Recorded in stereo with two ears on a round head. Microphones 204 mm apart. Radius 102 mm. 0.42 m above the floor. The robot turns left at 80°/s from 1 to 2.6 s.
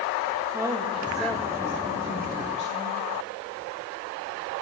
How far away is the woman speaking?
About 1.5 m.